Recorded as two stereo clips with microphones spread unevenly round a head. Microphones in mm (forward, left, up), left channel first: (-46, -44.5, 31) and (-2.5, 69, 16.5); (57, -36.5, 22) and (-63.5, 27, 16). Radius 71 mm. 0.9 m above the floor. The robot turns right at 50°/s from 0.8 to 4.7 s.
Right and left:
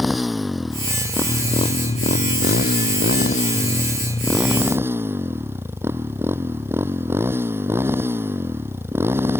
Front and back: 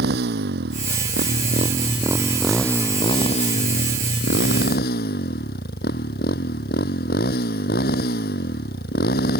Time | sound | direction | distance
0.0 | a motorcycle | 160° left | ?